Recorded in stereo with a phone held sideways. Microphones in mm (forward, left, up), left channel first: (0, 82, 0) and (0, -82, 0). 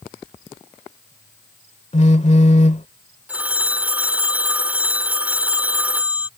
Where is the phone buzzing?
40° left (ahead or behind).